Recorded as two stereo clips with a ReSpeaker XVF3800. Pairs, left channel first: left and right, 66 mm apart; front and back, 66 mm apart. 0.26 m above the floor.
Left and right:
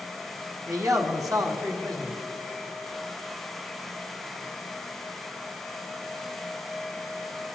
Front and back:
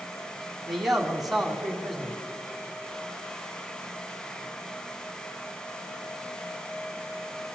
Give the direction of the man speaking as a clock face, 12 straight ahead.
3 o'clock.